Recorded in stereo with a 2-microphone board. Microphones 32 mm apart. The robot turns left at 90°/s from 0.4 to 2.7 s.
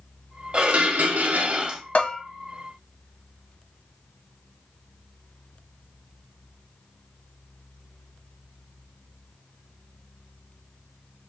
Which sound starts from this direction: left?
A bell, at 1.9 s.